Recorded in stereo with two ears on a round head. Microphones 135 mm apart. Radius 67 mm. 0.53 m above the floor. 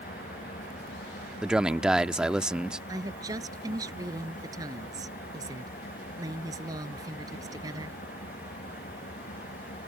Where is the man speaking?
5° right (ahead or behind).